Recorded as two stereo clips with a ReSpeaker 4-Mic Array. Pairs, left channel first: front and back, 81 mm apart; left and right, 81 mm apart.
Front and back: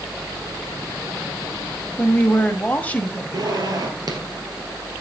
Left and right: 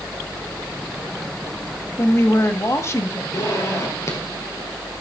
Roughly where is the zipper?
Behind left.